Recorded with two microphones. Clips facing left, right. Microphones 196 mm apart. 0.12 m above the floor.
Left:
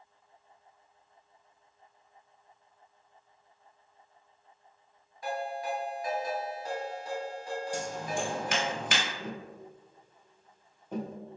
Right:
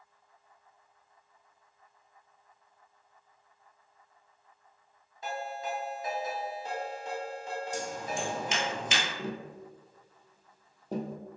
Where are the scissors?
60° left (ahead or behind), 0.9 m.